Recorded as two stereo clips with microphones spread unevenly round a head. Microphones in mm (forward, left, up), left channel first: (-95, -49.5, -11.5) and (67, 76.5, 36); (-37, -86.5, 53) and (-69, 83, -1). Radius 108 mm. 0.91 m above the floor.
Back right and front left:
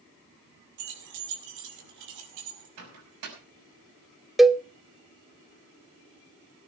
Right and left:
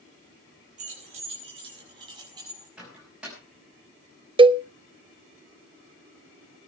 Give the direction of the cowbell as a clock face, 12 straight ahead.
7 o'clock.